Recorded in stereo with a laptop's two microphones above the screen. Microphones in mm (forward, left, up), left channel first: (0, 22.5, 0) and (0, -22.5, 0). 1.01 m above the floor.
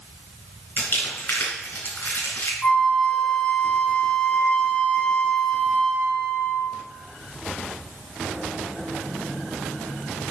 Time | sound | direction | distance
0.8 | crumpling | 50° left (ahead or behind) | 3.5 m
2.6 | a flute | 30° left (ahead or behind) | 1.6 m